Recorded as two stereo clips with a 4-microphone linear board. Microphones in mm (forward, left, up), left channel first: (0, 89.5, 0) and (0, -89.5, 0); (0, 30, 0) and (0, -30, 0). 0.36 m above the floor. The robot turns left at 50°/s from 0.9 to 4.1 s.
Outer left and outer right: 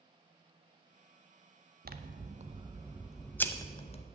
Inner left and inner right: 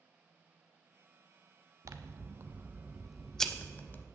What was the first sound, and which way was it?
Scissors, 115° right.